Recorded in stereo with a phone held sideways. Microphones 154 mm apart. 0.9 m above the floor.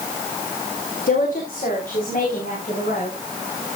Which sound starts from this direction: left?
A woman speaking, at 1.1 s.